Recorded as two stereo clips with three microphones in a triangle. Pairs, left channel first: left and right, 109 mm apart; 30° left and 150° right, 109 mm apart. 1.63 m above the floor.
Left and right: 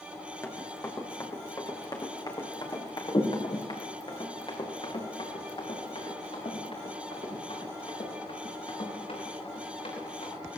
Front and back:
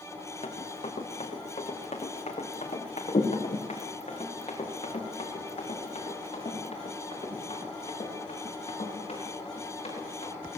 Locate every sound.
0.4 s running footsteps: 25° left, 4 m; by 10.3 s 65° left, 12 m